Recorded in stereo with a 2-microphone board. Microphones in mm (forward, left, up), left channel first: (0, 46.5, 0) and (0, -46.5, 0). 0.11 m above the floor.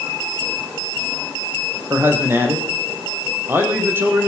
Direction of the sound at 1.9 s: 20° right (ahead or behind).